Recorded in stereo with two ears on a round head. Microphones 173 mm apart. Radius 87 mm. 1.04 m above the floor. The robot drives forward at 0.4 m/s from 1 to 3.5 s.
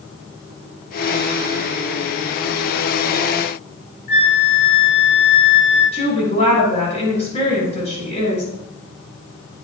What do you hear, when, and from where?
4.1 s a flute: 45° left (ahead or behind), 5 m
5.9 s a woman speaking: 35° left (ahead or behind), 6.5 m